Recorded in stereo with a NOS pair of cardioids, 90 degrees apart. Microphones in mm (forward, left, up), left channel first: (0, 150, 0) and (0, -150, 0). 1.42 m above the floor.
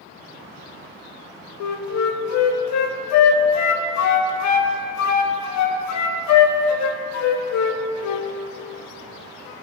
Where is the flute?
70° left, 0.7 m.